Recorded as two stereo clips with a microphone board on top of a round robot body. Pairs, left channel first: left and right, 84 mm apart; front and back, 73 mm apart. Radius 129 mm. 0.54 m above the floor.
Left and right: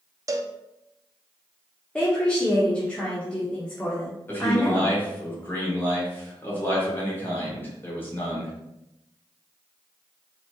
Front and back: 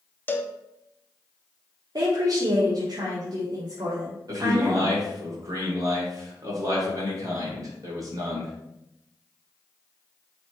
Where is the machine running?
No machine running in this recording.